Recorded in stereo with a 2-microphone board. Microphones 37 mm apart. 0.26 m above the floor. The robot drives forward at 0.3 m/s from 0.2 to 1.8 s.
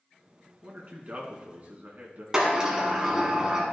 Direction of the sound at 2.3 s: 15° right (ahead or behind).